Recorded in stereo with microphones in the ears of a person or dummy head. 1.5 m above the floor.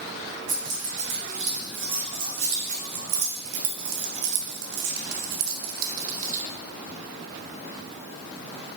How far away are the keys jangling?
About 3 m.